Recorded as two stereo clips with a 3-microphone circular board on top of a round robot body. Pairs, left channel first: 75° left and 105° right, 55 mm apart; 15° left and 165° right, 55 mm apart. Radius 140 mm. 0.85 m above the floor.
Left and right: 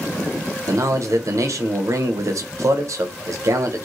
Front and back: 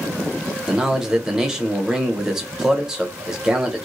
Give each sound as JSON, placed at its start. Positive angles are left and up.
{"t": 0.7, "sound": "a man speaking", "azimuth_deg": -85, "distance_m": 0.8}